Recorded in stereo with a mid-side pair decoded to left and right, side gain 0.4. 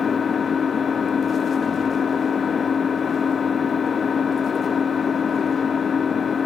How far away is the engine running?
About 0.7 m.